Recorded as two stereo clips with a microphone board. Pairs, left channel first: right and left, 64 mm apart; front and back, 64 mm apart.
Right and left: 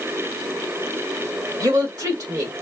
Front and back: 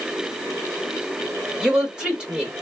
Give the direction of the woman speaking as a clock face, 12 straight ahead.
9 o'clock.